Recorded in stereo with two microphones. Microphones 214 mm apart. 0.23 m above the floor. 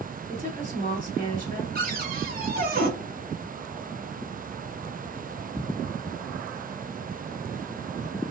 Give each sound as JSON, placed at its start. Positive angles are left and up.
{"t": 0.3, "sound": "a woman speaking", "side_deg": -40, "distance_m": 1.7}
{"t": 1.8, "sound": "a cupboard door", "side_deg": -45, "distance_m": 1.2}